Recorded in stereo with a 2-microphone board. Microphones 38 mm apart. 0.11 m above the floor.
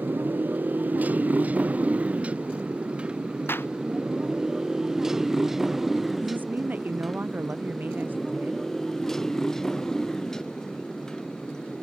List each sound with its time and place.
0.0 s a motorcycle: 55° right (ahead or behind); by 11.8 s 15° left (ahead or behind)
3.5 s a clap: 75° left (ahead or behind)
6.2 s a woman speaking: 55° right (ahead or behind)